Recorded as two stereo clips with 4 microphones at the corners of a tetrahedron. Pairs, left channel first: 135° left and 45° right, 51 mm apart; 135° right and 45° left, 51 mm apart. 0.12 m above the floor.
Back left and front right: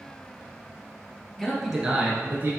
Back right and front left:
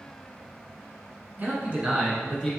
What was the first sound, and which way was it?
A man speaking, 60° left.